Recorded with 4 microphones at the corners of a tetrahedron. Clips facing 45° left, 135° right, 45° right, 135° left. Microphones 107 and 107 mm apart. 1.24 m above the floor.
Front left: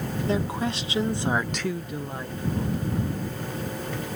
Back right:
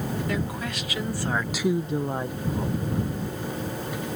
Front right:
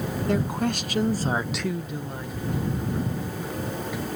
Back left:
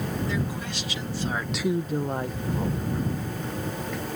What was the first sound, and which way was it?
A woman speaking, 15° right.